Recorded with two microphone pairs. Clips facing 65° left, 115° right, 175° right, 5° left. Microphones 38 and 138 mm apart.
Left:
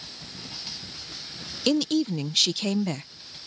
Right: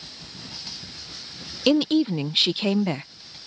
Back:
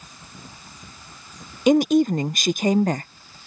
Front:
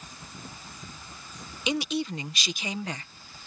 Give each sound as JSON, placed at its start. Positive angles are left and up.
{"t": 1.7, "sound": "a woman speaking", "azimuth_deg": -170}